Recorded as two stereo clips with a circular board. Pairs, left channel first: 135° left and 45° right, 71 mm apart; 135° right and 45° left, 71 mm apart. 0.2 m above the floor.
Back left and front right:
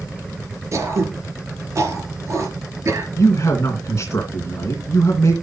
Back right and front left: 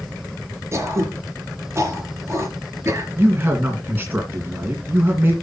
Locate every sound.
0.7 s throat clearing: straight ahead, 4 m
3.2 s a man speaking: 100° left, 2.5 m